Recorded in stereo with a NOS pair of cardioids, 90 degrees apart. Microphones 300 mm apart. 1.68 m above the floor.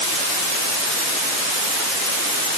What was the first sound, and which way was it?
Only background noise.